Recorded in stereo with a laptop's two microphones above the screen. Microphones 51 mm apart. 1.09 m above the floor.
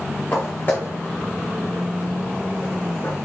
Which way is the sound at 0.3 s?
40° left (ahead or behind).